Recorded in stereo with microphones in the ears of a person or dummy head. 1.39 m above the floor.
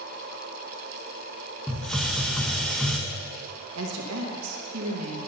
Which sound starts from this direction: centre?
A hiss, at 1.7 s.